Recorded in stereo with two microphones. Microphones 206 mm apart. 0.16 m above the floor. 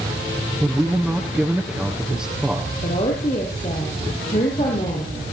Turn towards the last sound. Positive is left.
turn(degrees=30)  # may be behind; listen again after turning